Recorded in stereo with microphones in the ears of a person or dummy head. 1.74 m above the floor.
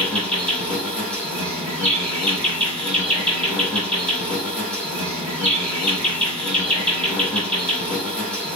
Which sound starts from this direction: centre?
An insect, at 0.0 s.